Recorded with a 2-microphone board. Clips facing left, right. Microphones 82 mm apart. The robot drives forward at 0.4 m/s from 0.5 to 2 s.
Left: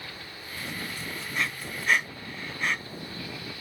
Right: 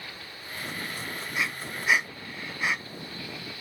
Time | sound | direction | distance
1.3 | breathing | 5° right (ahead or behind) | 0.7 m